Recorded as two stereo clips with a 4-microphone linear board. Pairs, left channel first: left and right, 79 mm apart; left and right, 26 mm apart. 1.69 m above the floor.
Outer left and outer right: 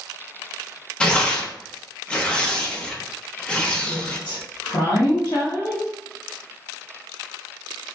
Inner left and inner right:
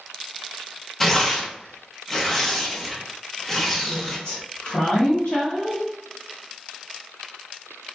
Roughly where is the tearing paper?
Centre.